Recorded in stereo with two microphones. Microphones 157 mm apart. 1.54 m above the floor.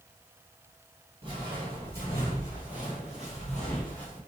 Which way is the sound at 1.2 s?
30° right (ahead or behind).